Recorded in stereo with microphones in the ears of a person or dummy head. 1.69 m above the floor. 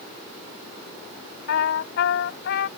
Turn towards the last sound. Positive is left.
turn(degrees=60)  # may be behind; listen again after turning